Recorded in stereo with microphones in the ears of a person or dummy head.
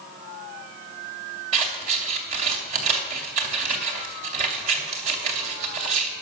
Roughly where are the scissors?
Right.